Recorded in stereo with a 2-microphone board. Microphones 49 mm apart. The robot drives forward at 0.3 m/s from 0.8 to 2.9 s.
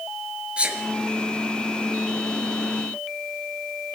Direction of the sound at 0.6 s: 25° right (ahead or behind).